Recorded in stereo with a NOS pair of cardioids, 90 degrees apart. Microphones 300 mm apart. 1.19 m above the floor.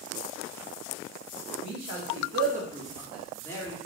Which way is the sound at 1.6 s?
65° right.